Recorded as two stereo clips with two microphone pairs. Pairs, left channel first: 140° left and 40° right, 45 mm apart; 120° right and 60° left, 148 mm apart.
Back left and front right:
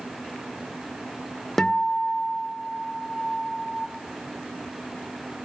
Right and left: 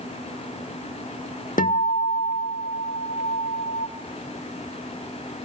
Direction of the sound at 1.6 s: 145° right.